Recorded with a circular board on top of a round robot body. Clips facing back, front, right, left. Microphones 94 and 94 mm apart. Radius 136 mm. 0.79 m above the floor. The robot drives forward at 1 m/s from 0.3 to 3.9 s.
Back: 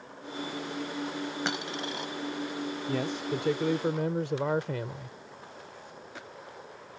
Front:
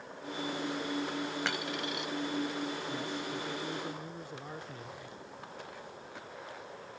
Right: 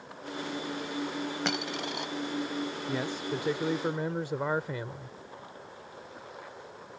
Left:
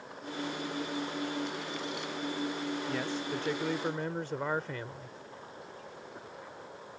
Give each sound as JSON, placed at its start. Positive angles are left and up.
{"t": 1.4, "sound": "a dropped coin", "azimuth_deg": -110}
{"t": 2.9, "sound": "a man speaking", "azimuth_deg": -165}